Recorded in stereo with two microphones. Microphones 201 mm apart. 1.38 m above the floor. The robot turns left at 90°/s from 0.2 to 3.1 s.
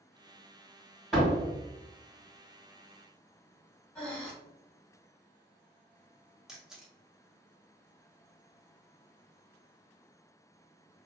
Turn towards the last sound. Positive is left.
turn(degrees=-5)  # may be behind; listen again after turning